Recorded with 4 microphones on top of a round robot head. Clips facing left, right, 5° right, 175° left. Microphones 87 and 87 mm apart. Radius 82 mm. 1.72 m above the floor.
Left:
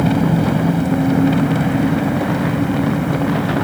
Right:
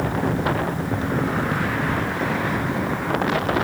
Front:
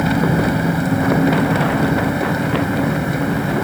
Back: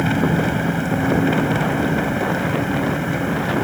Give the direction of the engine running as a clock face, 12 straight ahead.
10 o'clock.